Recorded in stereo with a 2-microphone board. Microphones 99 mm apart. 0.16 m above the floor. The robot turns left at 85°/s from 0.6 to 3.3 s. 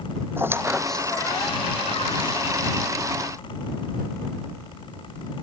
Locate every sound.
0.4 s a squeak: 25° right (ahead or behind); by 2.4 s 45° left (ahead or behind)